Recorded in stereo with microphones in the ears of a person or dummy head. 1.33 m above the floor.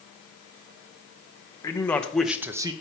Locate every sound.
1.6 s a man speaking: 15° left (ahead or behind), 0.9 m; by 2.7 s 25° right (ahead or behind), 0.6 m